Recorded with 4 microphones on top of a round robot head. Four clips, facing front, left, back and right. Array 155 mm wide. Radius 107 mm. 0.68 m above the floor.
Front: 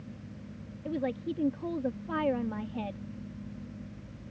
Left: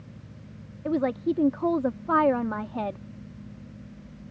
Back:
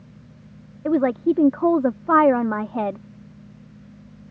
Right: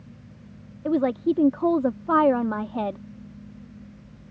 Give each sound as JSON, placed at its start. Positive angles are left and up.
{"t": 0.8, "sound": "a woman speaking", "azimuth_deg": -165}